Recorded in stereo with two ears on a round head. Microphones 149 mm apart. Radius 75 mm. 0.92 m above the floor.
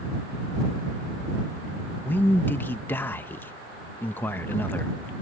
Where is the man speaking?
10° left (ahead or behind).